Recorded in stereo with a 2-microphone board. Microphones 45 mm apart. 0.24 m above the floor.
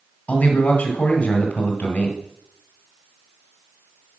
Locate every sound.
0.3 s a man speaking: 35° left (ahead or behind), 1.9 m